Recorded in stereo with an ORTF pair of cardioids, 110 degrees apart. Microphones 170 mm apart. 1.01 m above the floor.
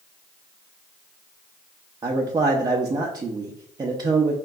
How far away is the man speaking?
About 0.6 m.